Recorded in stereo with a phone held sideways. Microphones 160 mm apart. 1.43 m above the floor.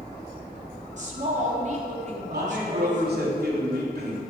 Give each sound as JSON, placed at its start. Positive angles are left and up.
{"t": 1.0, "sound": "a woman speaking", "side_deg": -50, "distance_m": 3.0}
{"t": 2.3, "sound": "a man speaking", "side_deg": -80, "distance_m": 4.0}